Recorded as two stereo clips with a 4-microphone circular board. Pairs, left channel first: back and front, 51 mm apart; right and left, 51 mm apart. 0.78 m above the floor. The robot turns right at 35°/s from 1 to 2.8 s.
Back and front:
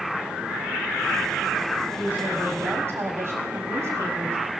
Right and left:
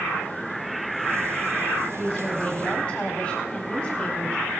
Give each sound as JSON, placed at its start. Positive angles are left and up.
{"t": 1.9, "sound": "a woman speaking", "azimuth_deg": -40, "distance_m": 2.0}